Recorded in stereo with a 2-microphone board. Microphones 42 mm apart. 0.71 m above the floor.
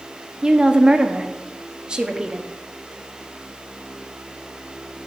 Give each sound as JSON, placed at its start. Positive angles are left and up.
{"t": 0.4, "sound": "a woman speaking", "side_deg": -20, "distance_m": 0.7}